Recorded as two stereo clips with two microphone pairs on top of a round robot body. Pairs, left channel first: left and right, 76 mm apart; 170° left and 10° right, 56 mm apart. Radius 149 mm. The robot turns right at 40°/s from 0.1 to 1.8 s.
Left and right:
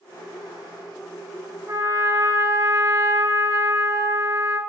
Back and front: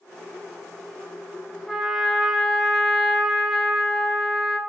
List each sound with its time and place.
1.7 s a trumpet: 100° right, 0.6 m; by 4.6 s 95° right, 0.6 m